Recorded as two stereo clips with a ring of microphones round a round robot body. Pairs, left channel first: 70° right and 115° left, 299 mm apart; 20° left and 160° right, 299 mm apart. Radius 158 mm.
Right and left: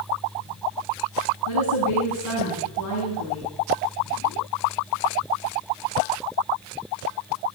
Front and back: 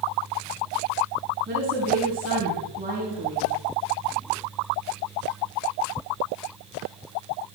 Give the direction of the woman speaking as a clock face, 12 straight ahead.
3 o'clock.